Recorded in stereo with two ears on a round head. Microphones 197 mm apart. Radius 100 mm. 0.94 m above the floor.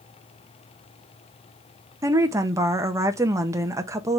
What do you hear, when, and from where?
2.0 s a woman speaking: 15° right (ahead or behind), 0.7 m